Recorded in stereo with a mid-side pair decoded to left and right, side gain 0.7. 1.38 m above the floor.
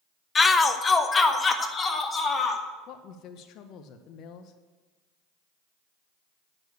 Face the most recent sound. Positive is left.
turn(degrees=55)